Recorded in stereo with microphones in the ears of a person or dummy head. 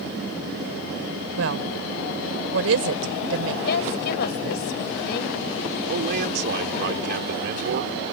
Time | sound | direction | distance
1.4 | a woman speaking | 90° right | ?
3.6 | a woman speaking | 65° left (ahead or behind) | ?
5.9 | a man speaking | 65° right (ahead or behind) | ?